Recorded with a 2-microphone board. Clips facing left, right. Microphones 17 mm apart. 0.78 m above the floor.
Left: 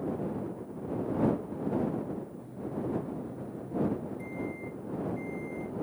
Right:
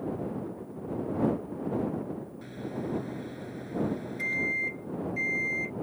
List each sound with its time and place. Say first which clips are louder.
2.4 s a microwave: right 1 dB; 70° right (ahead or behind)